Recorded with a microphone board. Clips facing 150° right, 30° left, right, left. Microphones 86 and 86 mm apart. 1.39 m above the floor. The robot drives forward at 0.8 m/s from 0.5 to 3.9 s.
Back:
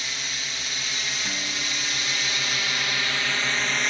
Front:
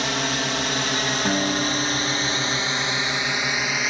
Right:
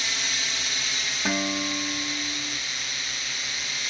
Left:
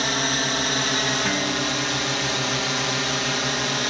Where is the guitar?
5° right; by 2.6 s 10° right.